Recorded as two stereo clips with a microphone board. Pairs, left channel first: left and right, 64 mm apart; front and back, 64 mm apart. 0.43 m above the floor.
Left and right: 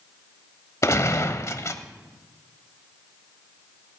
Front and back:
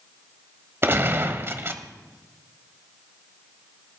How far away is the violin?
No violin in this recording.